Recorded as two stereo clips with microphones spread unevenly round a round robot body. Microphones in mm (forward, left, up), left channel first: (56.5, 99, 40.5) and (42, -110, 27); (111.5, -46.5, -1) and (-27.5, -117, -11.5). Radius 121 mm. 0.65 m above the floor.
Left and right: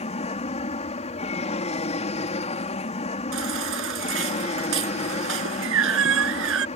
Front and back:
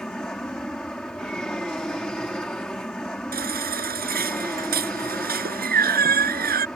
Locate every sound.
0.0 s an aircraft: 110° left
3.3 s a baby crying: 130° right